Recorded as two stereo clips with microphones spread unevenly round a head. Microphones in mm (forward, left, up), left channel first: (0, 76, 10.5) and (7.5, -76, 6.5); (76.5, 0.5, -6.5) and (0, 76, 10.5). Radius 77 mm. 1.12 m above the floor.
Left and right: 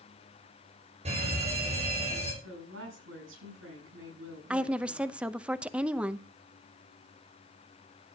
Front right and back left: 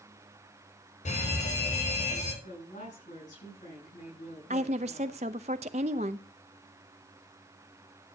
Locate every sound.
1.1 s a fire alarm: 35° right, 7.5 m
2.4 s a woman speaking: 85° right, 8.5 m
4.5 s a woman speaking: 170° right, 0.7 m